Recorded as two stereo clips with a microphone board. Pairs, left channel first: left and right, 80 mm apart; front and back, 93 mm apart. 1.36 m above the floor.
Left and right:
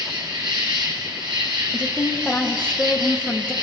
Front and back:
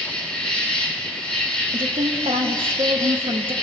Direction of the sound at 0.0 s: 80° right.